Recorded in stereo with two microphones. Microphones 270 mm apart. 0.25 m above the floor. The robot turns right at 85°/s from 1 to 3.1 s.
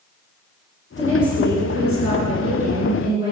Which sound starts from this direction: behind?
A woman speaking, at 1.0 s.